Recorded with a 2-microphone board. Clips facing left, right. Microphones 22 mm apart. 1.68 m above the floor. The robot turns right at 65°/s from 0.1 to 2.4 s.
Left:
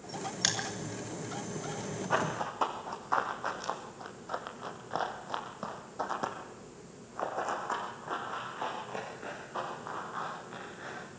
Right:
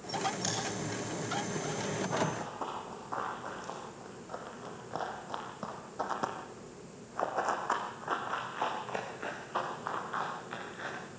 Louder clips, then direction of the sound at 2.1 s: Left 2 dB; 60° left (ahead or behind).